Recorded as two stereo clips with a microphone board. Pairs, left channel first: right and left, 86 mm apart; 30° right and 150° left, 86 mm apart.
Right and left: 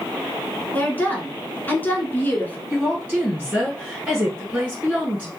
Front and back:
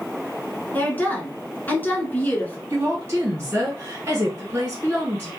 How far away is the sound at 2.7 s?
About 1.5 m.